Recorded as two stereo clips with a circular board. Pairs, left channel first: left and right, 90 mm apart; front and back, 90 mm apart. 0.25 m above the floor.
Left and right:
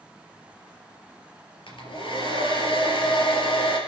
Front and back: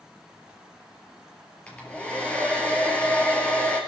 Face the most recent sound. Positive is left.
turn(degrees=80)